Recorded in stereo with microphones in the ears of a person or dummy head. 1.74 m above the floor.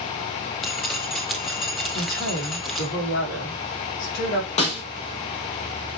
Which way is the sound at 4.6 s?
40° left (ahead or behind).